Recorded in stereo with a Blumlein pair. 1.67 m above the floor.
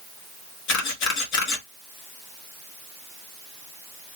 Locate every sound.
0.7 s a camera shutter: 40° left, 1.0 m